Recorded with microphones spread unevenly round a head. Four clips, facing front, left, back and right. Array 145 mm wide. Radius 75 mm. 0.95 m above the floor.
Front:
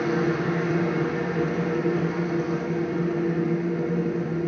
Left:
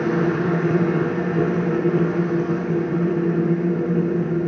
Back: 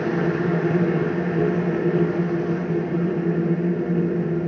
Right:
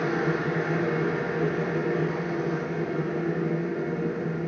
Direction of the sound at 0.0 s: 115° left.